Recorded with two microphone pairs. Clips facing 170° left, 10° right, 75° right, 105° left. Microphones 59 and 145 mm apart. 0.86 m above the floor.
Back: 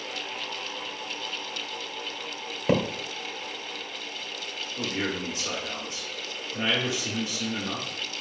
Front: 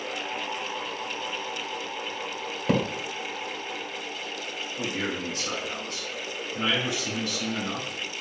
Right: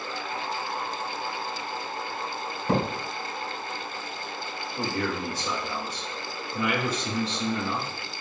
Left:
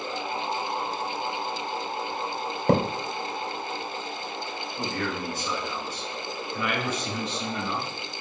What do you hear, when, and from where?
2.7 s a thud: 100° left, 1.6 m
4.8 s a man speaking: 125° right, 2.5 m